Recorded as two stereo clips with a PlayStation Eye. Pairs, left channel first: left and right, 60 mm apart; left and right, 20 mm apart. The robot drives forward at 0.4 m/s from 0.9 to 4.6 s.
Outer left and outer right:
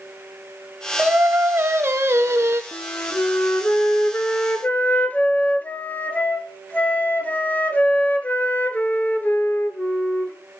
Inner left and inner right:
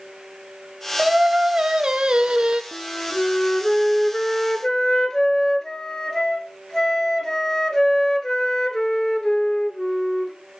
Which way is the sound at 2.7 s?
45° left (ahead or behind).